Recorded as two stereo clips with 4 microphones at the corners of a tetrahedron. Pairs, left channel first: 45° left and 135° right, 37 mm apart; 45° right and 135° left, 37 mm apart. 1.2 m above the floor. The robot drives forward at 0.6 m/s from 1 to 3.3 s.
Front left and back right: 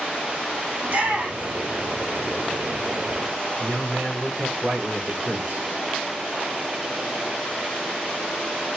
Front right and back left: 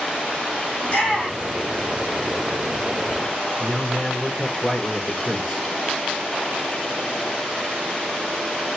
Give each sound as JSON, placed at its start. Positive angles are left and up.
{"t": 0.8, "sound": "a shout", "azimuth_deg": -95, "distance_m": 2.0}
{"t": 3.6, "sound": "a man speaking", "azimuth_deg": -130, "distance_m": 3.5}